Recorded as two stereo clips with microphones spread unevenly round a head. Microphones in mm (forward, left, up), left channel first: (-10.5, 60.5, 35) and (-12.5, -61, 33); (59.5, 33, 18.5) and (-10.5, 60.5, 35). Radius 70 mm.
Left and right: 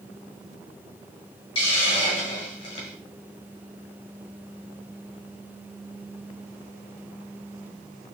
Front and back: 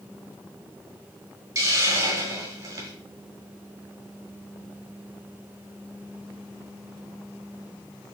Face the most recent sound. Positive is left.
turn(degrees=135)